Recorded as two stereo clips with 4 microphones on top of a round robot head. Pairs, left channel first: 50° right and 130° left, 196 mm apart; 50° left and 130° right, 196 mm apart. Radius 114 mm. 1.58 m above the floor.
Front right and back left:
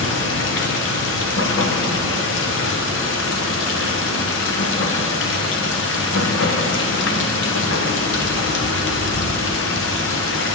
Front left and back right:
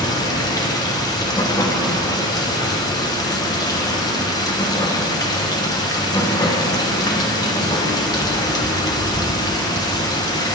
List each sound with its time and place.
0.0 s running water: 20° right, 1.1 m